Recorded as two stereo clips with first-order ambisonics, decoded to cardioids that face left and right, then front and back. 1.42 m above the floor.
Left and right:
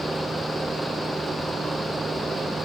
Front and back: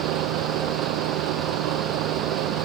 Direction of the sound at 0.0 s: 170° right.